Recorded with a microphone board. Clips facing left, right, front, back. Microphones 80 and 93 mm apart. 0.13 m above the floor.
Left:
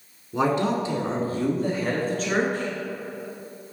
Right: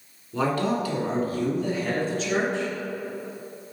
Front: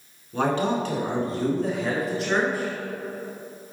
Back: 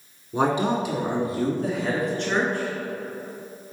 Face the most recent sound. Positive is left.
turn(degrees=80)